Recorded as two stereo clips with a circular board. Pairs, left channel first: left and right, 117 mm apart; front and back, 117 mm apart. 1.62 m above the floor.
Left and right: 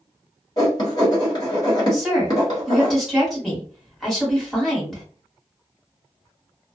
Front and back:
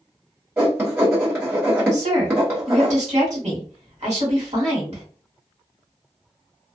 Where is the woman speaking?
Straight behind, 1.4 m.